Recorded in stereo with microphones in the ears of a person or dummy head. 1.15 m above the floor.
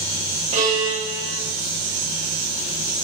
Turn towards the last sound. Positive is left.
turn(degrees=-30)  # may be behind; listen again after turning